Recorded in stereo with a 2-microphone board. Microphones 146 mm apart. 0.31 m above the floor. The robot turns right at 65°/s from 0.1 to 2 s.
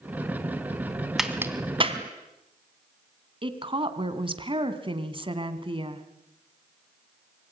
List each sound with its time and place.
1.2 s a crack: centre (ahead or behind), 2.5 m; by 2.0 s 45° right (ahead or behind), 2.5 m
3.4 s a woman speaking: 35° right (ahead or behind), 2.5 m